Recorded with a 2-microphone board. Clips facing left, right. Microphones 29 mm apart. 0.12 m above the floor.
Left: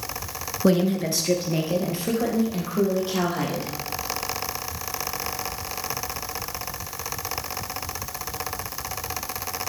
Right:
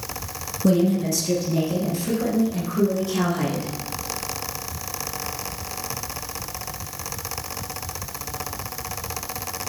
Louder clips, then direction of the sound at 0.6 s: Right 1 dB; 35° left (ahead or behind).